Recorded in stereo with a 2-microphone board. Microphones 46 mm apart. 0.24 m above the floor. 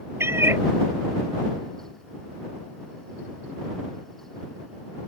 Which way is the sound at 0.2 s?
70° right (ahead or behind).